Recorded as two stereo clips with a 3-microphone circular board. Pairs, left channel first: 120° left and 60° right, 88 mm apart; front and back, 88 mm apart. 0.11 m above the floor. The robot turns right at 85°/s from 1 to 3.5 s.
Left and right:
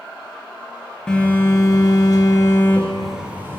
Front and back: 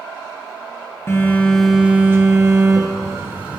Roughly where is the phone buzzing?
Ahead left.